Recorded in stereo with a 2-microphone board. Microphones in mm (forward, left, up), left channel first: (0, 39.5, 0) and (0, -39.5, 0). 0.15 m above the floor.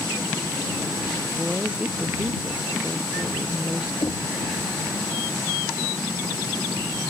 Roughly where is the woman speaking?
Centre.